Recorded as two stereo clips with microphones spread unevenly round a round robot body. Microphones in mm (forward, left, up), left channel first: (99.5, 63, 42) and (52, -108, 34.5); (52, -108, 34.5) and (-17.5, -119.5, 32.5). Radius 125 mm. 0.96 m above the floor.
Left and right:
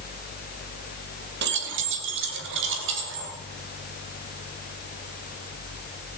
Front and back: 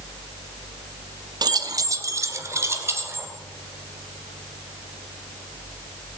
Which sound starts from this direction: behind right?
Keys jangling, at 1.4 s.